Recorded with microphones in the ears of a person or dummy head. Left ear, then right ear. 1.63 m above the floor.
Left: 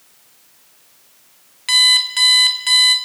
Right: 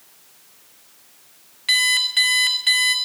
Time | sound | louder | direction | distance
1.7 | an alarm clock | left 5 dB | 15° left (ahead or behind) | 1.0 m